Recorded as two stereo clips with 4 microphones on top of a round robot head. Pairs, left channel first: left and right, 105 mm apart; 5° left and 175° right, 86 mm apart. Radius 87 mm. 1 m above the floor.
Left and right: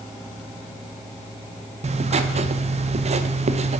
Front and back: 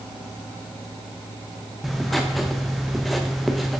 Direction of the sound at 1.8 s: 85° right.